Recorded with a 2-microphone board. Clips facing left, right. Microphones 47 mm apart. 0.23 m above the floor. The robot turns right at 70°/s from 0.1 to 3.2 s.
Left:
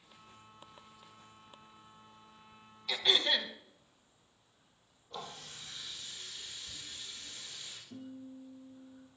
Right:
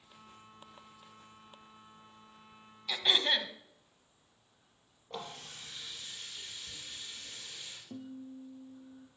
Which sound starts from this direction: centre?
Throat clearing, at 2.9 s.